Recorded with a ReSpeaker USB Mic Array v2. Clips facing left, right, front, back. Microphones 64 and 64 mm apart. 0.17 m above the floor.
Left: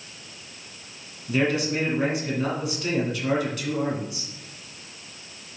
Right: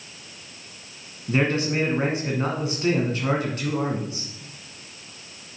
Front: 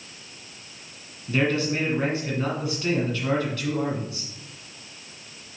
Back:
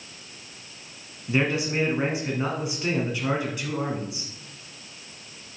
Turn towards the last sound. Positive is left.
turn(degrees=-115)